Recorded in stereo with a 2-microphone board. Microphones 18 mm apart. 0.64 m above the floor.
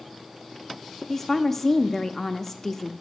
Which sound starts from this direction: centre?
A woman speaking, at 1.1 s.